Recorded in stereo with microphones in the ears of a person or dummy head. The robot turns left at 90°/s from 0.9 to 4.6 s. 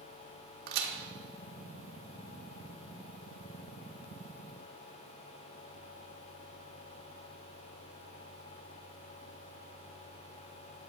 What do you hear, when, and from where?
0.7 s a crack: 60° right (ahead or behind), 0.8 m